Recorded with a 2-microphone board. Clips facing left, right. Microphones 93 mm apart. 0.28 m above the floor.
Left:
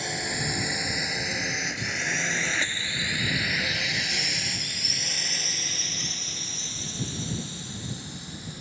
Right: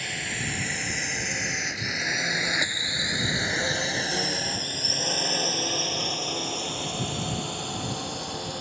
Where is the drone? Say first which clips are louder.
Left 2 dB; 20° left (ahead or behind); by 8.6 s 70° right (ahead or behind).